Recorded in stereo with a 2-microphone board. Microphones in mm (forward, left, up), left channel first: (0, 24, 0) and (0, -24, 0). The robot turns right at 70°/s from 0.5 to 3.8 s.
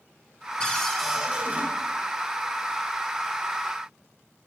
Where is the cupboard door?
155° left, 2.5 m; by 1.7 s 130° right, 2.5 m.